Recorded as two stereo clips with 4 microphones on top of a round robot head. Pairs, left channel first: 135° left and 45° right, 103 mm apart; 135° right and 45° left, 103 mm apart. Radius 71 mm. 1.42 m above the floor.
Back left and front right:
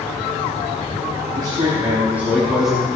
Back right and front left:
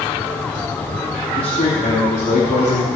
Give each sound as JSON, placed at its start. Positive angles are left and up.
{"t": 1.4, "sound": "a man speaking", "azimuth_deg": -95, "distance_m": 3.5}